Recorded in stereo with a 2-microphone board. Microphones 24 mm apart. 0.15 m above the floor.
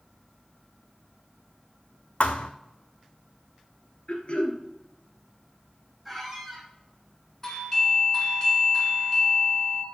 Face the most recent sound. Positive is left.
turn(degrees=15)  # may be behind; listen again after turning